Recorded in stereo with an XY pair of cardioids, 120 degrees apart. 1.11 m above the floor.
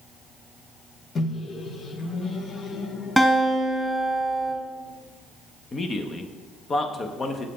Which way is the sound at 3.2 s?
5° left.